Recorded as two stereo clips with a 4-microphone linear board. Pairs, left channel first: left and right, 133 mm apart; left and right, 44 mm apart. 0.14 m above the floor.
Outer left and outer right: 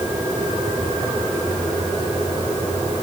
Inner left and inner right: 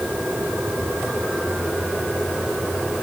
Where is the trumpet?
I don't hear a trumpet.